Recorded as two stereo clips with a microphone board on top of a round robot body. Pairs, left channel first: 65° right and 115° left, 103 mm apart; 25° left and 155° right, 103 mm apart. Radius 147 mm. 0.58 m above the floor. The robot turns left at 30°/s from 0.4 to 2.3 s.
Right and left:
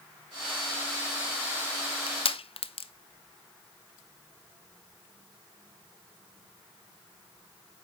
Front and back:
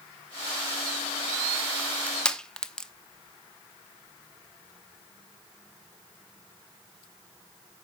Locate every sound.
1.8 s crushing: 45° right, 1.0 m; by 2.9 s 60° right, 1.0 m